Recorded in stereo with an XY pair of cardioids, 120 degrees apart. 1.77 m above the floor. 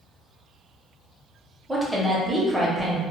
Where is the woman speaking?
5° right, 0.8 m.